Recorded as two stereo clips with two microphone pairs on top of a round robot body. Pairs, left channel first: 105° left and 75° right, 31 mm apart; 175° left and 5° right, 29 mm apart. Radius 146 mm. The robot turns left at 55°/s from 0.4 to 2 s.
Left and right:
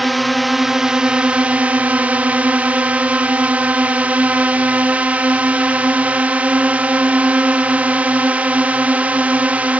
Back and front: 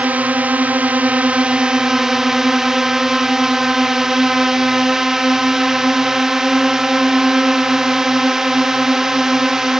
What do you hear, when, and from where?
0.0 s a drone: 5° left; by 9.8 s 80° right